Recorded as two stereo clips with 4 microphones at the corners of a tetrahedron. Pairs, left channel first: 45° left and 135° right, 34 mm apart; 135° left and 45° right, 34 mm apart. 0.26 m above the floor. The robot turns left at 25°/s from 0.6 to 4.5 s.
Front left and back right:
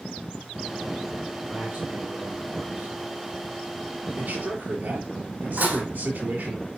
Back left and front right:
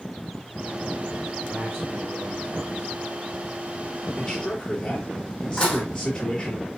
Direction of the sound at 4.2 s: 140° right.